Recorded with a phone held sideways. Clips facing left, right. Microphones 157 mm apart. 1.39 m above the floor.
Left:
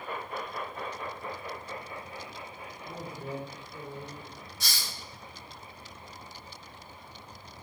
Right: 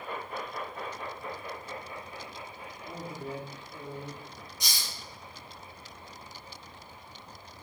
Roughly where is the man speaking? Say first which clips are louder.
Even; right.